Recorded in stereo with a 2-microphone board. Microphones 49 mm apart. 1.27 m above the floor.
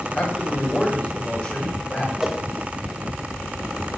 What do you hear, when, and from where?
0.1 s a man speaking: 20° left (ahead or behind), 5 m
2.2 s a whoosh: 10° right (ahead or behind), 1.3 m